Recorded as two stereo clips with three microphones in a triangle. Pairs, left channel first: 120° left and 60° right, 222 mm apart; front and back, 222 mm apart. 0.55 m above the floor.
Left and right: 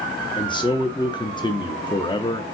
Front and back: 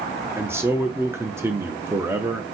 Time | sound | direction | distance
0.4 | a man speaking | 125° left | 0.6 m